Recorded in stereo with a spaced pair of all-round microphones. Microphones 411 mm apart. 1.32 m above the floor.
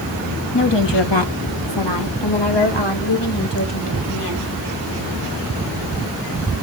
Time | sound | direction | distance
0.5 | a woman speaking | 70° left (ahead or behind) | 1.5 m